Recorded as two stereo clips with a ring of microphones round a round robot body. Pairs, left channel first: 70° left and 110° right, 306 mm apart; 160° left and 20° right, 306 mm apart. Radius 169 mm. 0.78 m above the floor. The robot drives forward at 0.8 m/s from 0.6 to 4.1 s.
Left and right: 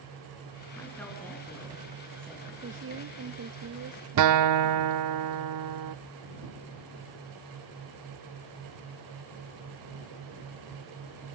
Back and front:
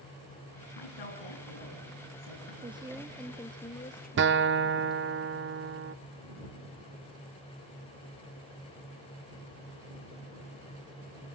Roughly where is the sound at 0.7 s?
Behind left.